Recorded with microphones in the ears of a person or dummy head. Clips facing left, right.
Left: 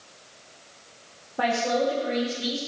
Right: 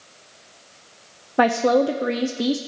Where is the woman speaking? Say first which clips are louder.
Right 7 dB; 80° right, 0.7 m.